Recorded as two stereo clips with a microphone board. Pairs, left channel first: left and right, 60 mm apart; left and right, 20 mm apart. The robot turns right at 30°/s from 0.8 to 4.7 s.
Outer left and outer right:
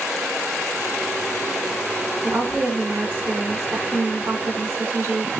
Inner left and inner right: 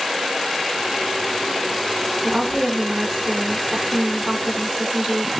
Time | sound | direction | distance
2.2 | a woman speaking | 165° right | 2 m